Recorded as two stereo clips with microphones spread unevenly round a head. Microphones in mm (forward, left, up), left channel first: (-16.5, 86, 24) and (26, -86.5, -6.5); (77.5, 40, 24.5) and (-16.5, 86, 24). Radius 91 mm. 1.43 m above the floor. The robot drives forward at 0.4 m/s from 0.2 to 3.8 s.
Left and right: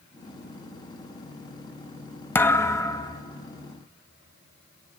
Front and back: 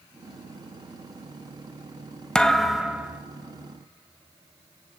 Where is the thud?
50° left, 0.8 m; by 3.2 s 100° left, 0.8 m.